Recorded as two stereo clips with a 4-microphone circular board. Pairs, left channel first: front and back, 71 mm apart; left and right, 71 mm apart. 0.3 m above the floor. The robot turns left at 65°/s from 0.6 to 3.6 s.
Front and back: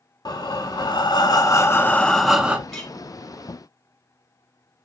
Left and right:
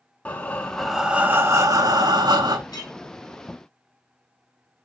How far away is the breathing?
About 0.5 m.